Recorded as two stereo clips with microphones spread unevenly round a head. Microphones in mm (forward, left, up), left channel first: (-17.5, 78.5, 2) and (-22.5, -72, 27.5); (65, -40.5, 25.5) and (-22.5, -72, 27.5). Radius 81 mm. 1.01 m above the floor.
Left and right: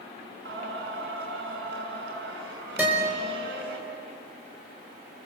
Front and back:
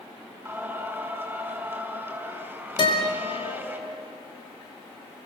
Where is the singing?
90° right, 6 m.